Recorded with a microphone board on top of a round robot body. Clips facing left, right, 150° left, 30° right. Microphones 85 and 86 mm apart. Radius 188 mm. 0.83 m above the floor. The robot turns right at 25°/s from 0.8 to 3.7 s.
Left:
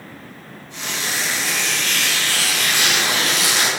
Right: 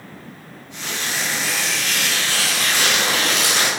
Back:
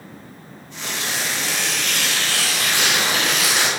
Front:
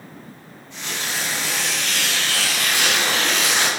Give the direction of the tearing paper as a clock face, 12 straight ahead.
7 o'clock.